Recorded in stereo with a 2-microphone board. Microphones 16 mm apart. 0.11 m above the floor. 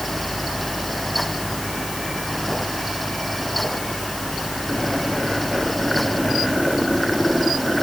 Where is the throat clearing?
I don't hear throat clearing.